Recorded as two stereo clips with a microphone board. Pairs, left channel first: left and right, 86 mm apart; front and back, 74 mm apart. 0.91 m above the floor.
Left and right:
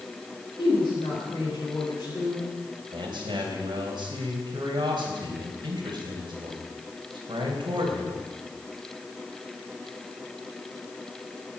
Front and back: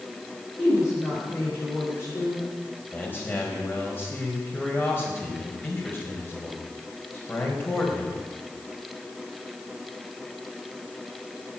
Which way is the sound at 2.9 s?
65° right.